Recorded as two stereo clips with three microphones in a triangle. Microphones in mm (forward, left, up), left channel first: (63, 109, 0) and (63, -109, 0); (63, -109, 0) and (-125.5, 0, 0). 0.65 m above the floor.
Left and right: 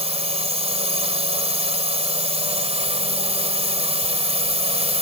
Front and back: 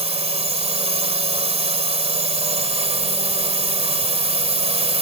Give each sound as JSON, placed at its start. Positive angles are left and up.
{"t": 0.0, "sound": "a drone", "azimuth_deg": -150}